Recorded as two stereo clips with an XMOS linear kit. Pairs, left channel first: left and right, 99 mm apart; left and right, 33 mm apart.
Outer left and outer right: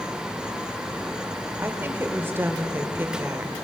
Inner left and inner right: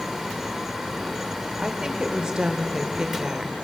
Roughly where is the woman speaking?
Right.